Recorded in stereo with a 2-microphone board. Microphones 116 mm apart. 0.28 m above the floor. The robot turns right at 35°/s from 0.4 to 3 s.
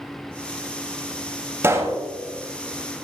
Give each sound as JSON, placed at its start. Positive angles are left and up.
{"t": 1.6, "sound": "a pop", "side_deg": -25, "distance_m": 0.9}